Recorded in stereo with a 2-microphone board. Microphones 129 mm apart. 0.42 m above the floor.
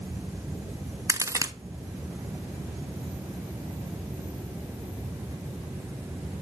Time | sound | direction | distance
1.1 | a crack | 25° right (ahead or behind) | 0.7 m